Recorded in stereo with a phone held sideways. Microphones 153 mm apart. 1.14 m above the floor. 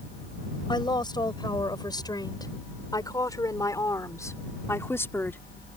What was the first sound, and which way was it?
A woman speaking, 30° left (ahead or behind).